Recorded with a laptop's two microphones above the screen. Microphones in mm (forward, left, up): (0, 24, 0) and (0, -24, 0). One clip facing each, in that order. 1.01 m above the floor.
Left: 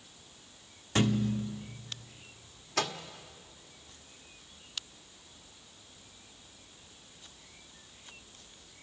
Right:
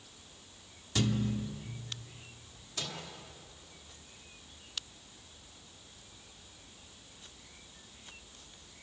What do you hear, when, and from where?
0.9 s a thud: 35° left (ahead or behind), 0.9 m
2.8 s a microwave: 75° left (ahead or behind), 1.7 m